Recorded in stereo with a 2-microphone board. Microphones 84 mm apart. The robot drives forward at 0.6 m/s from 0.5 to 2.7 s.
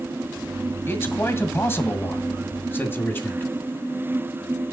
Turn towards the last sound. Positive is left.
turn(degrees=25)  # may be behind; listen again after turning